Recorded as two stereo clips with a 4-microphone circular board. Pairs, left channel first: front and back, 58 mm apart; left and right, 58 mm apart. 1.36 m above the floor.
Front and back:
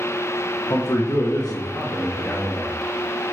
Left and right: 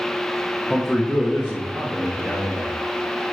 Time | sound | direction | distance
0.7 | a man speaking | 10° left | 0.6 m